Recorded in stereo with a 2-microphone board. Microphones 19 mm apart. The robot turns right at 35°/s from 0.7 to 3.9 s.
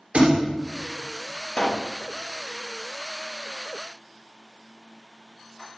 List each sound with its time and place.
0.1 s a thud: 60° right (ahead or behind), 3.5 m
1.6 s a pop: 45° left (ahead or behind), 0.7 m; by 1.9 s 35° left (ahead or behind), 0.7 m